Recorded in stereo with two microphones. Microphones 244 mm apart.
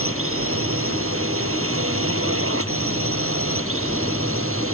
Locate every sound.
0.0 s a drone: 60° right (ahead or behind)